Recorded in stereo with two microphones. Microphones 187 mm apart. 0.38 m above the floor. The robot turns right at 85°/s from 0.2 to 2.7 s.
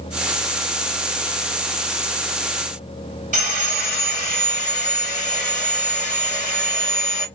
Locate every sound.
3.3 s sawing: 45° right (ahead or behind), 1.7 m